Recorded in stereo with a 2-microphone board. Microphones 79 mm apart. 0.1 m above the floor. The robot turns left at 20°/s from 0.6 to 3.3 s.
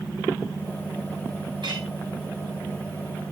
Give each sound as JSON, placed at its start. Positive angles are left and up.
{"t": 1.6, "sound": "a clink", "side_deg": -60, "distance_m": 7.0}